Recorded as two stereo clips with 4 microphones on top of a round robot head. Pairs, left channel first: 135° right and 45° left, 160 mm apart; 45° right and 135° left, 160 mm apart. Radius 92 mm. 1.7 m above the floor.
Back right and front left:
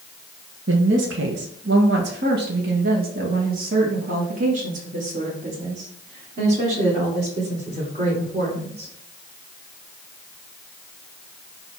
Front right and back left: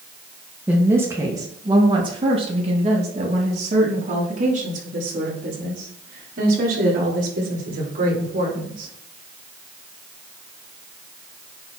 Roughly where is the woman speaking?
Ahead left.